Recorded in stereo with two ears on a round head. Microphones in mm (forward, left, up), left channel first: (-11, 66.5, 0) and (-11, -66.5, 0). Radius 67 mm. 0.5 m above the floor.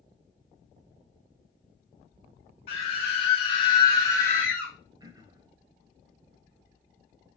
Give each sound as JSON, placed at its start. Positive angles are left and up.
{"t": 2.7, "sound": "a scream", "side_deg": 40, "distance_m": 1.7}
{"t": 5.0, "sound": "throat clearing", "side_deg": -25, "distance_m": 0.6}